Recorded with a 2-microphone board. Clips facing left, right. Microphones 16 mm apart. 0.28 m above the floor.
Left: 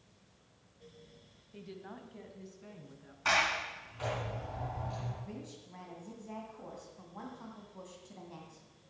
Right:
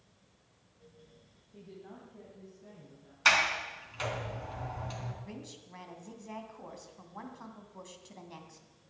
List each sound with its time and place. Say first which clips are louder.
1.5 s a woman speaking: left 2 dB; 40° left (ahead or behind), 1.6 m; by 3.1 s 65° left (ahead or behind), 3.5 m
3.2 s a sliding door: right 4 dB; 55° right (ahead or behind), 3.5 m
5.2 s a woman speaking: even; 30° right (ahead or behind), 2.5 m